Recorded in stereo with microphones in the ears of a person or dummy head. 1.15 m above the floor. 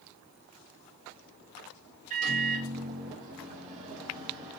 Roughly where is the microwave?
Right.